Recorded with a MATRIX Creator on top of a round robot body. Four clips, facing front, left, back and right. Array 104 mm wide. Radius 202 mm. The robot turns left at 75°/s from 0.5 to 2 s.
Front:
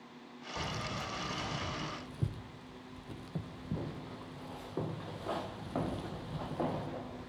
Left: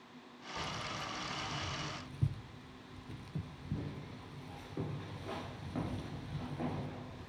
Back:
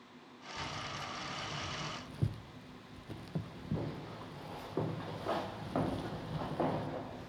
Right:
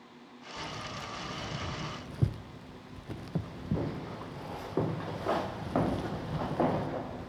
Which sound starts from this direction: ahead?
Keys jangling, at 0.6 s.